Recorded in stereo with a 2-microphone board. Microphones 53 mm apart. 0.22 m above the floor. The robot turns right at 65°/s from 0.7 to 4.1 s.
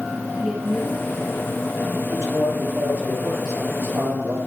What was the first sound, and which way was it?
A woman speaking, 20° right.